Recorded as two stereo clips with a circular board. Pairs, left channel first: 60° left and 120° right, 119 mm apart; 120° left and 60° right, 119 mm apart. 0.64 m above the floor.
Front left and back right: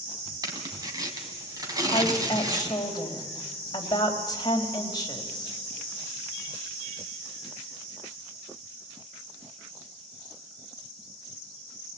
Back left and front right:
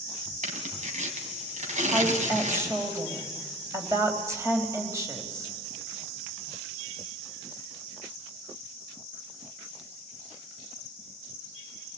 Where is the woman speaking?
5° left, 4 m.